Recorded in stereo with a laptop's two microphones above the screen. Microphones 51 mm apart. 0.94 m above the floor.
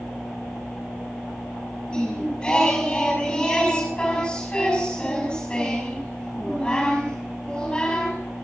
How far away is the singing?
About 5 m.